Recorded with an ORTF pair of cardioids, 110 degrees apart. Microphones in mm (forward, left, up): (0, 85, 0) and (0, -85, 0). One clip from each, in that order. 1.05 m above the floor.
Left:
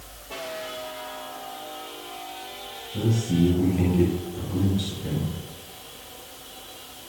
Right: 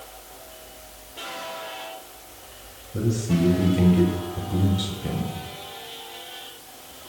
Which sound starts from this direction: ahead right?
A man speaking, at 2.9 s.